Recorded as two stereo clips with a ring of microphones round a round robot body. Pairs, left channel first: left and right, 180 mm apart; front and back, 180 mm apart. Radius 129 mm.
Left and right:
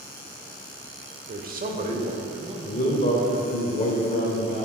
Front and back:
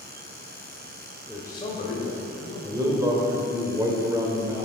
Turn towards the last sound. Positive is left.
turn(degrees=120)